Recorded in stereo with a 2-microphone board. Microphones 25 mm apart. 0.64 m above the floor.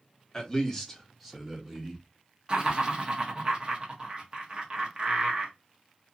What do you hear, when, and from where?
0.3 s a man speaking: 15° left (ahead or behind), 1.1 m; by 2.0 s 20° right (ahead or behind), 0.9 m
2.5 s laughter: 35° right (ahead or behind), 0.8 m